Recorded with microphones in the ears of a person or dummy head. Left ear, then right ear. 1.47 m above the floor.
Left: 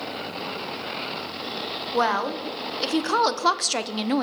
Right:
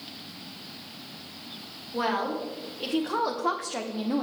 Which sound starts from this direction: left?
A woman speaking, at 1.9 s.